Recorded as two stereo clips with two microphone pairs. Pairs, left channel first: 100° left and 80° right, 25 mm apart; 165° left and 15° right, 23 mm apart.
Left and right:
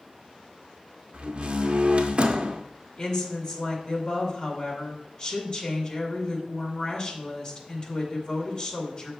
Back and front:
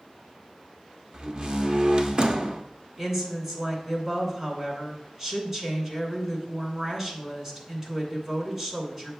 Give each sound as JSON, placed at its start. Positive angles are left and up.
{"t": 1.1, "sound": "a door slam", "azimuth_deg": -55, "distance_m": 0.6}
{"t": 3.0, "sound": "a woman speaking", "azimuth_deg": 45, "distance_m": 2.0}